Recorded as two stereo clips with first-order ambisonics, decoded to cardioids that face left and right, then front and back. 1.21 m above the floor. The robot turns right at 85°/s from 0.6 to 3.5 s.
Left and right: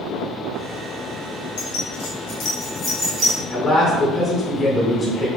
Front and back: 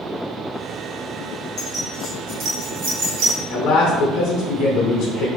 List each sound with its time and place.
1.6 s keys jangling: 65° left, 1.6 m; by 3.4 s 145° right, 1.6 m
3.5 s a man speaking: 5° left, 0.8 m